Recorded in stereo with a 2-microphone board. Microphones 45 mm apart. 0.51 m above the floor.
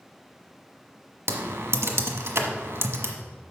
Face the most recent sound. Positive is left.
turn(degrees=-75)  # may be behind; listen again after turning